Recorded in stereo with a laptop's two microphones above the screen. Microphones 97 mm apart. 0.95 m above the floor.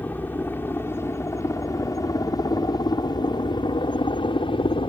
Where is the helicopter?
20° left (ahead or behind); by 4.9 s 65° left (ahead or behind).